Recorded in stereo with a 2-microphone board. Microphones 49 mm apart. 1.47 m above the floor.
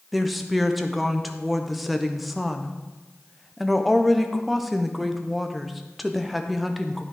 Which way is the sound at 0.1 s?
Centre (ahead or behind).